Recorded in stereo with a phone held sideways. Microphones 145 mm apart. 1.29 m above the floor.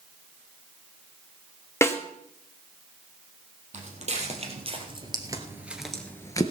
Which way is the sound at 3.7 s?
55° right (ahead or behind).